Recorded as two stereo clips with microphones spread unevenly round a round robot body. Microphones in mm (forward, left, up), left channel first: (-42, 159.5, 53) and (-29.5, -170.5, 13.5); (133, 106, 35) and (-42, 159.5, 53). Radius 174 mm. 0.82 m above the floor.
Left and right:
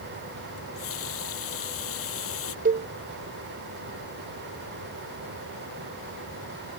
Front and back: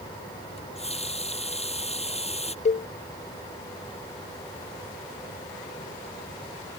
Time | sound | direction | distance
0.6 | a running tap | 40° left | ?
2.6 | a cowbell | 30° right | ?